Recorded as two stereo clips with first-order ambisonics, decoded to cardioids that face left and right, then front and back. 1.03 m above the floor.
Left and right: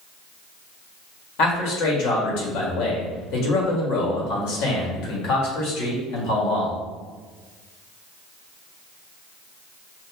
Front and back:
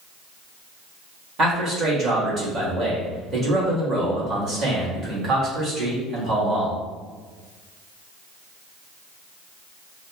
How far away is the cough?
I don't hear a cough.